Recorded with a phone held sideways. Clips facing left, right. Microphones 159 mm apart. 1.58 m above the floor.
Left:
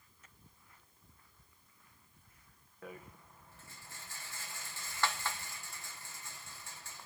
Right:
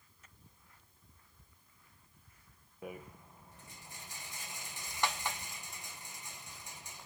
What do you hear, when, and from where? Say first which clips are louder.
2.8 s a rattle: right 3 dB; 15° right (ahead or behind), 1.1 m